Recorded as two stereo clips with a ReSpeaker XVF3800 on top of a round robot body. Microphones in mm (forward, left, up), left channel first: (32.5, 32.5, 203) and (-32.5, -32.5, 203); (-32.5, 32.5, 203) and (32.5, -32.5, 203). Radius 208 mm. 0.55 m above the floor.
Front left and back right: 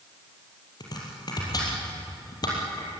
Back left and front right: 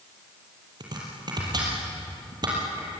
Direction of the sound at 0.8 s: Straight ahead.